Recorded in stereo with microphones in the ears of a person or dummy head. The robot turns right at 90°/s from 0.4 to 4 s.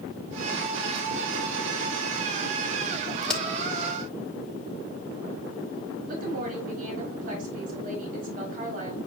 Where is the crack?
Centre (ahead or behind), 1.0 m; by 3.4 s 15° left (ahead or behind), 1.0 m.